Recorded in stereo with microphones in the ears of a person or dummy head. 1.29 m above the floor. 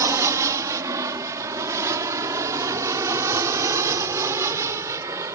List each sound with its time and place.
0.0 s an aircraft: 20° right (ahead or behind)